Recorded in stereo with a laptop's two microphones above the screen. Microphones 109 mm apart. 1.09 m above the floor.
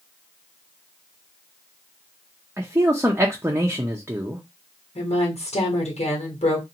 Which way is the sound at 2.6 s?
20° right (ahead or behind).